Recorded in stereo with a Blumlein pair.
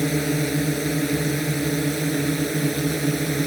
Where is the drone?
5° right.